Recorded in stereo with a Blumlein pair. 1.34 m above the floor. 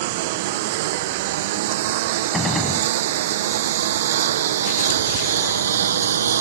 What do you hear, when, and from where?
0.0 s a lawn mower: 50° right; by 6.4 s 65° right
2.3 s a gunshot: 10° left